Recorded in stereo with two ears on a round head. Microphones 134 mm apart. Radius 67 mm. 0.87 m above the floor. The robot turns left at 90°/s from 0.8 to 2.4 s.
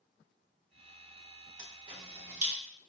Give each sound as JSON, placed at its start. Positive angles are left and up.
{"t": 1.6, "sound": "a camera shutter", "side_deg": -15, "distance_m": 0.9}